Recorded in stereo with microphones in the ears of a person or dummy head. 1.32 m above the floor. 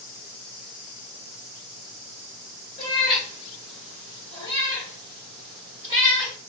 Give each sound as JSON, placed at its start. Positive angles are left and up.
{"t": 2.8, "sound": "a cat meowing", "side_deg": 20, "distance_m": 3.0}